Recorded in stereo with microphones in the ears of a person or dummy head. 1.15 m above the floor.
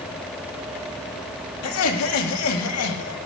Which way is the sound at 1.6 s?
85° left.